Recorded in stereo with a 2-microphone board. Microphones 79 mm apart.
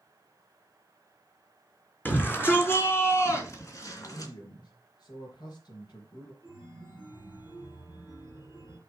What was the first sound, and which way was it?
A shout, 20° left (ahead or behind).